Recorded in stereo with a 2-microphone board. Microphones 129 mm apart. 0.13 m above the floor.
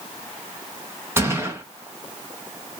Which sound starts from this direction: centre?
A gunshot, at 1.2 s.